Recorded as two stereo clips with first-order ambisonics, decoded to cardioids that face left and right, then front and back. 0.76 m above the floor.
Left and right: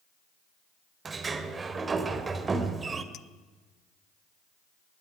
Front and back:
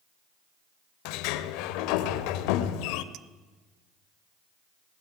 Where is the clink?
140° left, 0.7 m.